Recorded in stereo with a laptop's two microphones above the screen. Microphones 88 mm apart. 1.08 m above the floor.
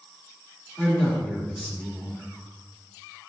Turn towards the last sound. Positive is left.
turn(degrees=10)  # may be behind; listen again after turning